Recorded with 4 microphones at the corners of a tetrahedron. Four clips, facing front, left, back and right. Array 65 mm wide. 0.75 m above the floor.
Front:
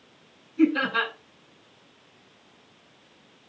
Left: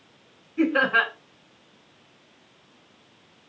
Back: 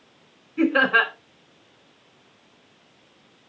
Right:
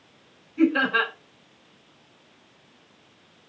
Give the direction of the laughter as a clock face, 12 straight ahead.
7 o'clock.